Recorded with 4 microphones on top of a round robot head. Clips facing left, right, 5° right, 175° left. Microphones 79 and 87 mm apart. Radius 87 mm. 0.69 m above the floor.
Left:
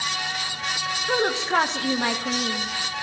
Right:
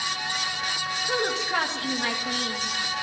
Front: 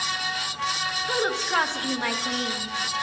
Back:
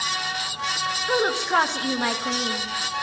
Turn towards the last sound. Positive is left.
turn(degrees=120)